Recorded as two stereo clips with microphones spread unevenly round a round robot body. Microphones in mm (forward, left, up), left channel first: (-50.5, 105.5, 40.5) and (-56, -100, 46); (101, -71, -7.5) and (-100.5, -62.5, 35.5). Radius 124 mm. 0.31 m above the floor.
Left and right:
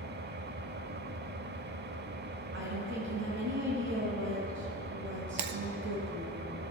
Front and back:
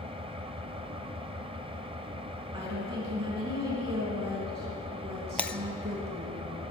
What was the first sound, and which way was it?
An engine running, 115° right.